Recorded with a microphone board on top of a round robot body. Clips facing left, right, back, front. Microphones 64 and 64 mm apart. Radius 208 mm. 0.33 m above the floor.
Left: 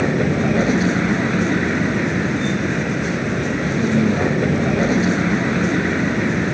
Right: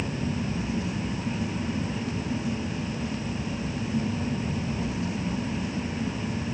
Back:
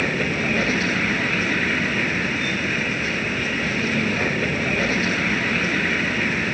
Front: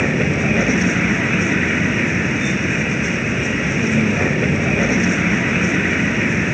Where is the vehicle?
80° left.